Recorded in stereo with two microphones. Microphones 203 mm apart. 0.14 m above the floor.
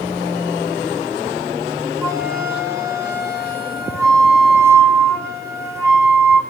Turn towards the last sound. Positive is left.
turn(degrees=-15)  # may be behind; listen again after turning